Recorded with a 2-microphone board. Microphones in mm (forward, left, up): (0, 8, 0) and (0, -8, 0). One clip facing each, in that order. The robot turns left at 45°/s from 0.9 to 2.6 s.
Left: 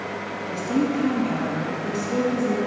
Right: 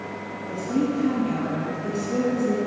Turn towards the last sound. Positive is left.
turn(degrees=0)